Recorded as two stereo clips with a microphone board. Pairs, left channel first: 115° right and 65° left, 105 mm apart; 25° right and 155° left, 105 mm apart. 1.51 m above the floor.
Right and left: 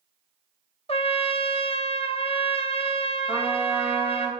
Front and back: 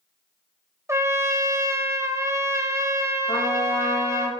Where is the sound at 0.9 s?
140° right, 0.7 m.